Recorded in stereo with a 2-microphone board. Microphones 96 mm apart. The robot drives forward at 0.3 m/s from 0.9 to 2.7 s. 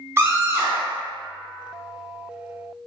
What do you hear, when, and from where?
0.2 s a scream: 25° right (ahead or behind), 1.0 m